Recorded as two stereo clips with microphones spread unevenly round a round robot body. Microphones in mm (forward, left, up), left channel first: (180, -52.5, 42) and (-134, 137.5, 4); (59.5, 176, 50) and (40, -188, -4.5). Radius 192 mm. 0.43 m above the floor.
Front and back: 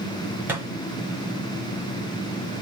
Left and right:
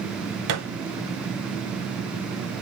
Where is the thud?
130° right, 1.2 m.